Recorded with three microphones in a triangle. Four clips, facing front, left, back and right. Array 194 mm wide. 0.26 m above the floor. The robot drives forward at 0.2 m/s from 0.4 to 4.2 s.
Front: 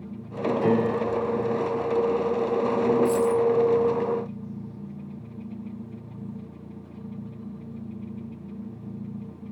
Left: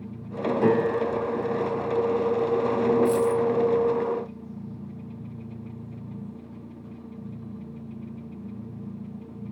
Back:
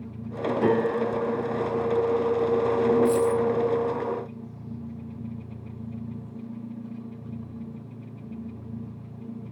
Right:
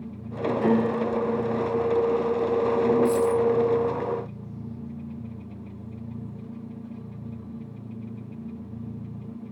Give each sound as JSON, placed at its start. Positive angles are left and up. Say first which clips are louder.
{"t": 0.6, "sound": "a piano", "louder": "left 1 dB, back 1 dB", "azimuth_deg": 120, "distance_m": 1.7}
{"t": 3.0, "sound": "a dropped coin", "louder": "even, even", "azimuth_deg": 60, "distance_m": 1.4}